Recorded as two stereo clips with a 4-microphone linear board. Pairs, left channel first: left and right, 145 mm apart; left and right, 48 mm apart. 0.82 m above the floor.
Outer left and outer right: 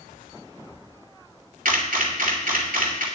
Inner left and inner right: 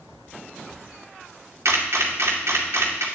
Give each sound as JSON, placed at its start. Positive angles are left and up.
{"t": 1.6, "sound": "a camera shutter", "side_deg": -70, "distance_m": 2.0}